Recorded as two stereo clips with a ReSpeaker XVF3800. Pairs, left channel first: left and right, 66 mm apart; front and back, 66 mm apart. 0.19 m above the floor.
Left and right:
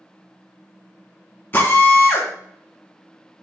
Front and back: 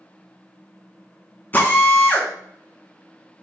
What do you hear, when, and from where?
1.5 s a drill: 45° left, 0.8 m